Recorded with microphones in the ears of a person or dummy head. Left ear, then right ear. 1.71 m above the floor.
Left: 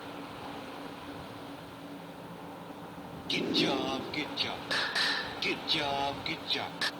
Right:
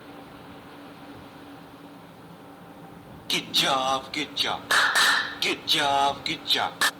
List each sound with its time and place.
3.3 s singing: 45° right (ahead or behind)